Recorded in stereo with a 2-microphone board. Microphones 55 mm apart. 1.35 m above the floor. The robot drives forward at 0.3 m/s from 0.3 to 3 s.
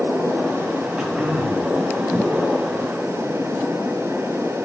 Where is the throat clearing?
10° right (ahead or behind), 1.4 m.